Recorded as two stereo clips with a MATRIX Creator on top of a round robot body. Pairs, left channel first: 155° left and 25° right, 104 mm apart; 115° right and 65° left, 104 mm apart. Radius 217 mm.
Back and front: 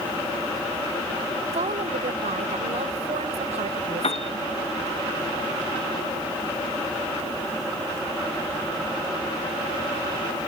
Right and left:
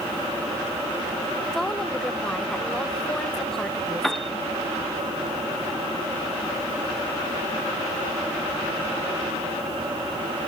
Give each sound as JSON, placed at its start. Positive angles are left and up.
{"t": 1.5, "sound": "a woman speaking", "azimuth_deg": -30}
{"t": 4.0, "sound": "a piano", "azimuth_deg": 160}